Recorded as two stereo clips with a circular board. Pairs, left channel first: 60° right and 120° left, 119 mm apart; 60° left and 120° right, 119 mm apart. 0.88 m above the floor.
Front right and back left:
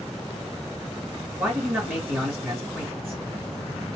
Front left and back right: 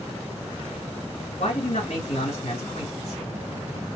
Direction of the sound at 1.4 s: 50° left.